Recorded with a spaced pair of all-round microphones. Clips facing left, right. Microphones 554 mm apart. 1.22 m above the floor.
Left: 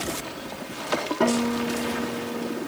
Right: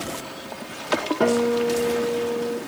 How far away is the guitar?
About 3 m.